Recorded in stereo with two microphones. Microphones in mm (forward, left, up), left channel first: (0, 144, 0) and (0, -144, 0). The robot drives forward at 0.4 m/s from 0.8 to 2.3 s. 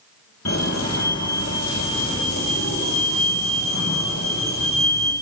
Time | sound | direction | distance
0.5 | a fire alarm | 60° left (ahead or behind) | 3.5 m